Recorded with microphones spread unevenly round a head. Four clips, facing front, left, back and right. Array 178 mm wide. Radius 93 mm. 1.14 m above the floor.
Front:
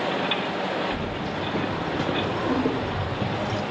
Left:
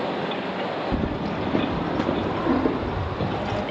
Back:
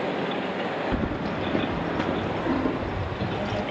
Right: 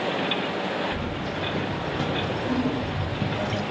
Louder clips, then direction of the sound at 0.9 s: Left 4 dB, back 1 dB; 100° left.